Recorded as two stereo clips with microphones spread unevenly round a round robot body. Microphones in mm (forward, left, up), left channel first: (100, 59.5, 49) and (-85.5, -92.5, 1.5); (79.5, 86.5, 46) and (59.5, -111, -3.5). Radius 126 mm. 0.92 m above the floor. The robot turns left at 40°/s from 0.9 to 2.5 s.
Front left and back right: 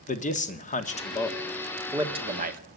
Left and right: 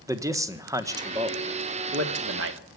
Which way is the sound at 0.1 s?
25° right.